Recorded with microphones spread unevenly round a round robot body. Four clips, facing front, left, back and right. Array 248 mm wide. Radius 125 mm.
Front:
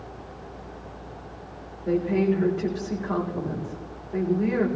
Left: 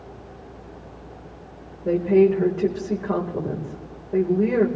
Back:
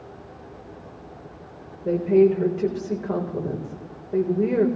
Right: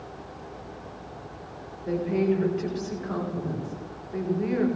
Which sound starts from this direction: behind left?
A woman speaking, at 1.9 s.